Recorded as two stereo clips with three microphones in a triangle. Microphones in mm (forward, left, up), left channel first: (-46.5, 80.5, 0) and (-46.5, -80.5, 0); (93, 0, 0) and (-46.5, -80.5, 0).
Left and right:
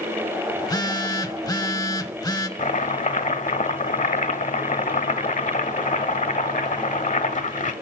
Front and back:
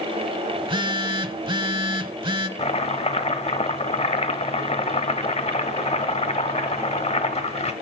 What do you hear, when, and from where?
0.6 s a phone buzzing: 155° left, 0.7 m
2.6 s chopping: 70° left, 0.8 m